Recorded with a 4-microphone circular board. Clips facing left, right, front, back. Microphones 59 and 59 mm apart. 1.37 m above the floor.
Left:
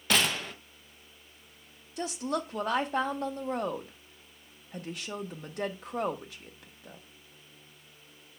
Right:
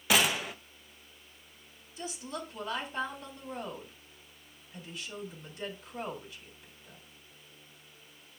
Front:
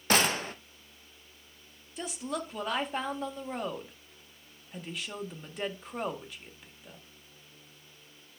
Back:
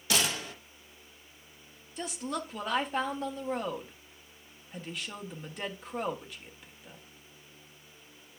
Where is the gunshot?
10° right, 0.6 m.